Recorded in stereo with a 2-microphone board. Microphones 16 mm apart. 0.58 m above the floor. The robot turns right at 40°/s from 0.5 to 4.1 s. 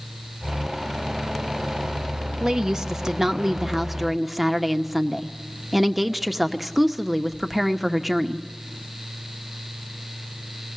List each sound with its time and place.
2.4 s a woman speaking: 85° right, 0.9 m; by 8.5 s 15° right, 0.9 m